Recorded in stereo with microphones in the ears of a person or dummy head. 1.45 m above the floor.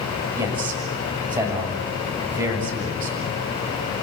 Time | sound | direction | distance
0.3 | a man speaking | 15° right (ahead or behind) | 7 m